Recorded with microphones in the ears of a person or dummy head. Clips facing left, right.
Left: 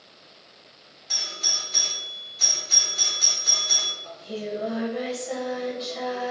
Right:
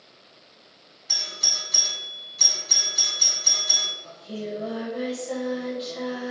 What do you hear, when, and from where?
1.1 s a doorbell: 60° right (ahead or behind), 1.9 m
4.0 s singing: 15° right (ahead or behind), 1.2 m